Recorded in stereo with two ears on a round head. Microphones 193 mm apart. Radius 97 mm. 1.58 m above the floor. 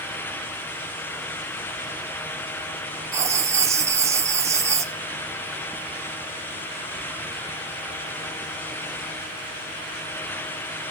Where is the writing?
15° right (ahead or behind), 1.2 m.